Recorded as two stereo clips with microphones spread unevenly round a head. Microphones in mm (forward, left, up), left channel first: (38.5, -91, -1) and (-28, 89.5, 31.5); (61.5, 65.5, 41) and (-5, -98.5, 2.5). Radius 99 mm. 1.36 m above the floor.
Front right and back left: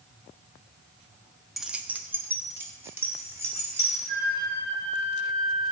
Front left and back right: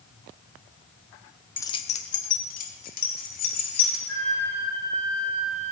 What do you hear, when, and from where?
1.6 s keys jangling: 45° left, 0.5 m; by 4.0 s 30° left, 3.5 m
4.1 s a flute: 145° left, 5.5 m